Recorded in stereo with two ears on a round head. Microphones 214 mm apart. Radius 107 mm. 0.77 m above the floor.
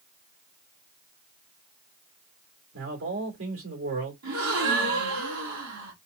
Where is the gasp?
70° right (ahead or behind), 2.5 m.